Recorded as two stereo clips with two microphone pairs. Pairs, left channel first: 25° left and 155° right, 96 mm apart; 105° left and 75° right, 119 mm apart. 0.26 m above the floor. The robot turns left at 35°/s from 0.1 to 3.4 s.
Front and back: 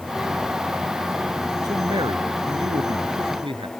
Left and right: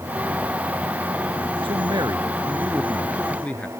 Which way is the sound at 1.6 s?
115° right.